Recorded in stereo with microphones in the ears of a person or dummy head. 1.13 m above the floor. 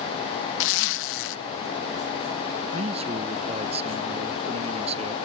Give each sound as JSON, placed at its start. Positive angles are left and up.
{"t": 0.6, "sound": "a zipper", "side_deg": 80}
{"t": 2.7, "sound": "a man speaking", "side_deg": -35}